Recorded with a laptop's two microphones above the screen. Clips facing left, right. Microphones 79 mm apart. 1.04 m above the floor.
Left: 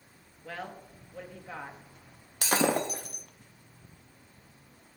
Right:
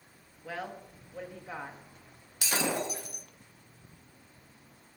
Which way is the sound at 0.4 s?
10° right (ahead or behind).